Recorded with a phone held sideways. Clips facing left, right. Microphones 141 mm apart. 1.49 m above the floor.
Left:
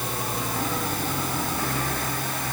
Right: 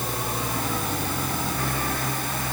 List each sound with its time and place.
Only background noise.